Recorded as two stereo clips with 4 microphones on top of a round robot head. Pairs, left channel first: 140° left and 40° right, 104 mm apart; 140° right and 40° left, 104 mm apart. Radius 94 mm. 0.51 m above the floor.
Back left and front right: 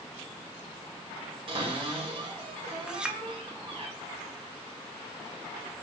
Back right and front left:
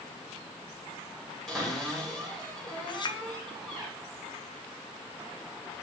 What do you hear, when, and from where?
1.5 s a cupboard door: 55° right, 2.0 m
2.9 s a clink: 120° right, 0.6 m